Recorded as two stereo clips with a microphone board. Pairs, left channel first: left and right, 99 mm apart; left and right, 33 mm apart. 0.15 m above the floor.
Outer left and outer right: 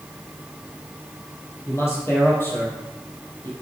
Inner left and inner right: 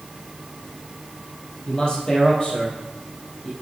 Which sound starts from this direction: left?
A man speaking, at 1.7 s.